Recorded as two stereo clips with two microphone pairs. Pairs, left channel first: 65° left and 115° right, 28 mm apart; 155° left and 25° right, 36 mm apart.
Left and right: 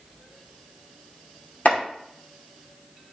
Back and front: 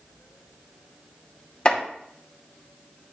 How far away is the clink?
No clink in this recording.